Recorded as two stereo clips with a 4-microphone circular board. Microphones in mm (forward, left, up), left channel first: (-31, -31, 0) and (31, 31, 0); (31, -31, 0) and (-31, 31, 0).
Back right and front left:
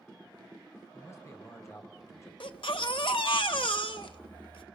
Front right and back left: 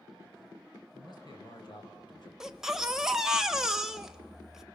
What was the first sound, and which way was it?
A man speaking, 75° right.